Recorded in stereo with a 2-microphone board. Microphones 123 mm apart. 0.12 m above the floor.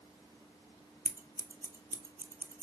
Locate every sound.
1.1 s scissors: 20° right (ahead or behind), 0.6 m